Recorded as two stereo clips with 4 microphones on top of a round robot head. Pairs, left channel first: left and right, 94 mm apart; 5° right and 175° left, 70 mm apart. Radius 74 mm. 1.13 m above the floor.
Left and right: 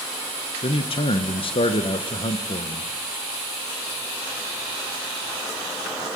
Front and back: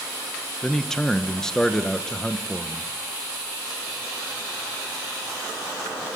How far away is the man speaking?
About 1.0 m.